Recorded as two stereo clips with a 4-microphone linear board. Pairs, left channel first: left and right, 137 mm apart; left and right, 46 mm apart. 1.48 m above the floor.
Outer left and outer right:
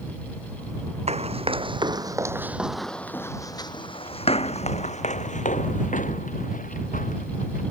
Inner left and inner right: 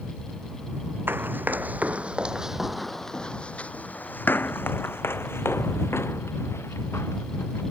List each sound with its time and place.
1.1 s running footsteps: 50° right (ahead or behind); by 7.6 s 75° left (ahead or behind)